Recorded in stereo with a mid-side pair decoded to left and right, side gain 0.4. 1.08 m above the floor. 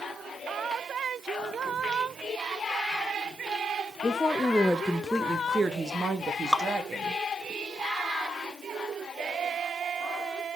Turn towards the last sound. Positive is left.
turn(degrees=5)